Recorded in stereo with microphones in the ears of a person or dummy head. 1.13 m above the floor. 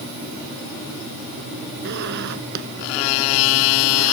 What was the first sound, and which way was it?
A zipper, 65° right (ahead or behind).